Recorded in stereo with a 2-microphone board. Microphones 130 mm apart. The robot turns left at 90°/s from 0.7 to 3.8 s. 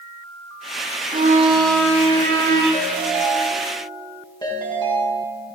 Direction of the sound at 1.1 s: 100° right.